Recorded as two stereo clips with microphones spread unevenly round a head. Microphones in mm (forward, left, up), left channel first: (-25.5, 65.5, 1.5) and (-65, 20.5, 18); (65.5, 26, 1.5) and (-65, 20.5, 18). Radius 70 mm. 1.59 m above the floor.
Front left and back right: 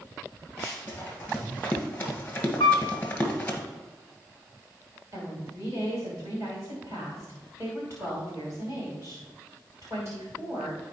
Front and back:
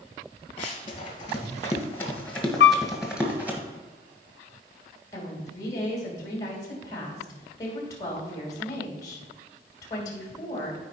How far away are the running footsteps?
About 1.9 m.